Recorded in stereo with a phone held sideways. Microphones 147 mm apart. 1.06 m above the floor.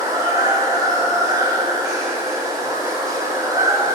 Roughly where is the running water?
Right.